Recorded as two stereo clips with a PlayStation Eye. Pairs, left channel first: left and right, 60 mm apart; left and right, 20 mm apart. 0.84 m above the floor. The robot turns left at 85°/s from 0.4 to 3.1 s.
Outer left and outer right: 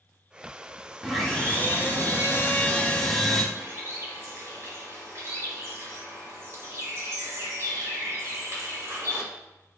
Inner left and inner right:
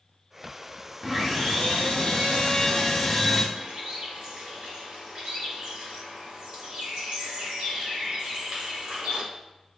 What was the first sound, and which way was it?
Sawing, 175° right.